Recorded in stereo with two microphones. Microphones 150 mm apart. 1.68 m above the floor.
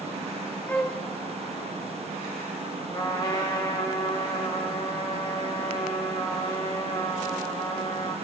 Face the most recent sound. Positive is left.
turn(degrees=35)  # may be behind; listen again after turning